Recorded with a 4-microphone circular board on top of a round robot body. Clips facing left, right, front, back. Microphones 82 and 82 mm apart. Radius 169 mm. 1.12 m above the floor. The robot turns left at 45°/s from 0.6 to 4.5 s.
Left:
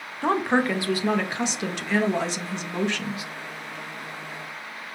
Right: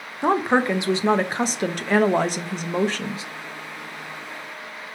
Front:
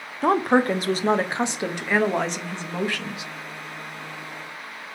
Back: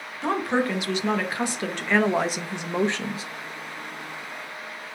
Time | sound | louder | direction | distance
0.2 | a woman speaking | right 3 dB, front 5 dB | 20° right | 0.6 m